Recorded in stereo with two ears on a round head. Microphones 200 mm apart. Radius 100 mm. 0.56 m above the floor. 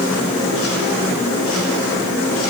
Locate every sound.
Only background noise.